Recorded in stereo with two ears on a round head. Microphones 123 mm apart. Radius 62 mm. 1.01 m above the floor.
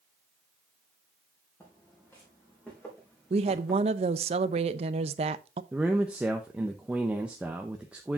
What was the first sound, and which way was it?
Footsteps, 15° left (ahead or behind).